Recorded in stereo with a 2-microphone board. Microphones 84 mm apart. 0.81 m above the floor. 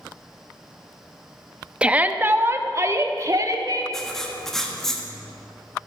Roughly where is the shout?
Centre.